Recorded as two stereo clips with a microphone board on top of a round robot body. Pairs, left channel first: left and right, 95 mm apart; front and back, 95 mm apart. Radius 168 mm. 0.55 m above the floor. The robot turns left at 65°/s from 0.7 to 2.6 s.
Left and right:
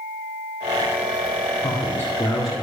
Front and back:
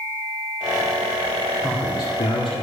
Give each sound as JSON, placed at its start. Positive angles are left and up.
{"t": 1.6, "sound": "a man speaking", "azimuth_deg": 50, "distance_m": 2.5}